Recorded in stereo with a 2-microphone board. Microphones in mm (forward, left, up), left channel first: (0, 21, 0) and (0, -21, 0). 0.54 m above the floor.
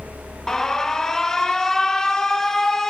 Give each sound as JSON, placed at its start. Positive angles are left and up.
{"t": 0.5, "sound": "an alarm", "side_deg": 10, "distance_m": 0.5}